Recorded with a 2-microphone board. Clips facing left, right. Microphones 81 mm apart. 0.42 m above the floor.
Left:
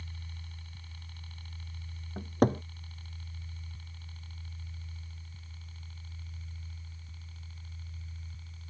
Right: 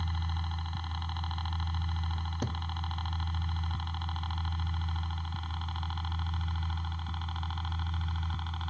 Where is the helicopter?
60° right (ahead or behind); by 8.7 s 70° right (ahead or behind).